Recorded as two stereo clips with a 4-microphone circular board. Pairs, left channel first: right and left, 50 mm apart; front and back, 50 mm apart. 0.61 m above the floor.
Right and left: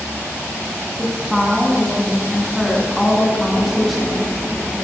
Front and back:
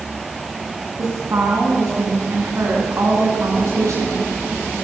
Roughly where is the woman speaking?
Behind.